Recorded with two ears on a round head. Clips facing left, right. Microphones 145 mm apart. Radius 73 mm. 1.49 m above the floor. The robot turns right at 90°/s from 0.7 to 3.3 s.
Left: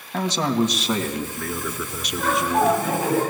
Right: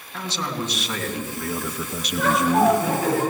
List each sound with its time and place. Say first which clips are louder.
0.1 s a man speaking: left 8 dB; 140° left, 2 m; by 2.8 s 35° right, 2 m
2.2 s laughter: right 2 dB; 60° right, 10 m; by 3.2 s 35° left, 10 m